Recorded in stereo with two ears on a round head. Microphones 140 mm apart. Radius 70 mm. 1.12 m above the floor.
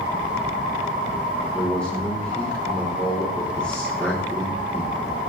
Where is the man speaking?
5° left (ahead or behind), 4 m.